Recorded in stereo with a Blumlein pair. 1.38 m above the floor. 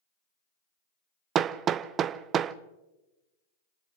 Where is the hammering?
30° right, 0.6 m.